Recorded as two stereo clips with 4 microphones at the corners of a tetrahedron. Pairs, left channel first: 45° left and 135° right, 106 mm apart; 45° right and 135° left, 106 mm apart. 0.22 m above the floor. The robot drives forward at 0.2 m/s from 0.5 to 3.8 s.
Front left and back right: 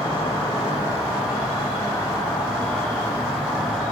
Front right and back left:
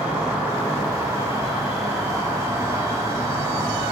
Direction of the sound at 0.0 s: 55° left.